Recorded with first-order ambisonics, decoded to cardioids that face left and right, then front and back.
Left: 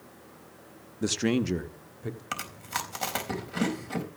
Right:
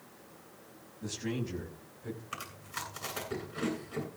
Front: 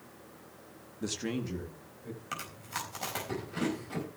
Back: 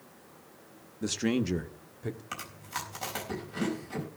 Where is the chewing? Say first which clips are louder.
Left 9 dB, front 4 dB; 90° left, 4 m.